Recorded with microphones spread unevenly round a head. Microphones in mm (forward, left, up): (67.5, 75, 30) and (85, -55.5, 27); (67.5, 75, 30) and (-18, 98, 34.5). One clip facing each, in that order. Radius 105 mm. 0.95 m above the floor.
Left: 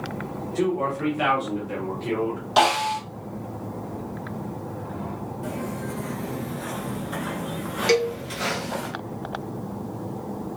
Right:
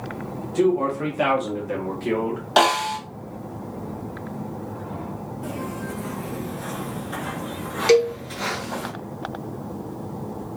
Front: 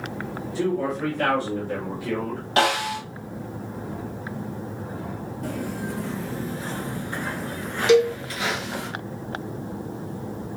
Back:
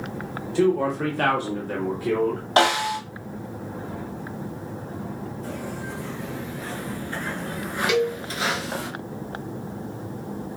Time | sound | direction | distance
0.6 | a man speaking | 155° right | 1.4 m
2.6 | a snare drum | 125° right | 2 m
5.4 | footsteps | straight ahead | 1.4 m
7.9 | a cowbell | 40° right | 0.9 m